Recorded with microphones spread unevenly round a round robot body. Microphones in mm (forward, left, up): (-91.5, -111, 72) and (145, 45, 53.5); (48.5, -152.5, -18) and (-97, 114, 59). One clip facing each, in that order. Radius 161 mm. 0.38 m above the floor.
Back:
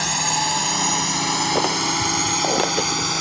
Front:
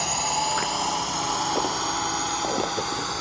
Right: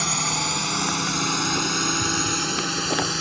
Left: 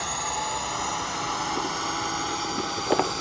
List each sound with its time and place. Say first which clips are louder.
0.0 s a drone: back 3 dB, right 4 dB; 85° right; by 3.2 s 100° right